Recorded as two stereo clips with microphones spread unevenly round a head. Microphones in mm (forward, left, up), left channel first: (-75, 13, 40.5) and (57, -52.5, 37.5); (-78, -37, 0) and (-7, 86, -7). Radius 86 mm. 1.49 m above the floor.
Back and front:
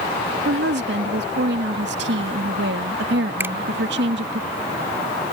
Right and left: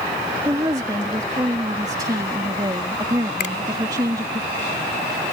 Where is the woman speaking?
10° right.